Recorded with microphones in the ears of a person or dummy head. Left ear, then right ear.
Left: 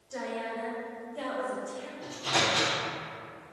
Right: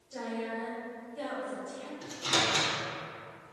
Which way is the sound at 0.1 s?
50° left (ahead or behind).